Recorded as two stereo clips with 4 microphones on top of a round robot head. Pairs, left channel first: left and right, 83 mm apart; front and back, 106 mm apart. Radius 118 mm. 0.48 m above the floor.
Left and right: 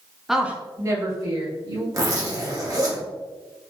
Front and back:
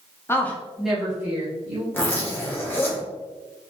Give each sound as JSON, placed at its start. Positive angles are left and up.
{"t": 0.3, "sound": "a woman speaking", "azimuth_deg": -5, "distance_m": 1.0}
{"t": 1.9, "sound": "a zipper", "azimuth_deg": -60, "distance_m": 1.6}